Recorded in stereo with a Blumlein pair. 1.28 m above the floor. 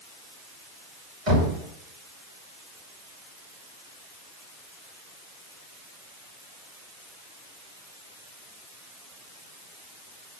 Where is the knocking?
30° right, 5 m.